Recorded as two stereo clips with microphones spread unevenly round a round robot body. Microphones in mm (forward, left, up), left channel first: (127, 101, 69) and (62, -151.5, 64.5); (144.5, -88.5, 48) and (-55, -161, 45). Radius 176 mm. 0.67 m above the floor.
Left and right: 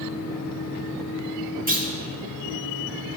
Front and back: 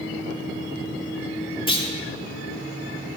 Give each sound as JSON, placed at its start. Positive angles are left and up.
{"t": 1.7, "sound": "a clunk", "azimuth_deg": -45, "distance_m": 2.0}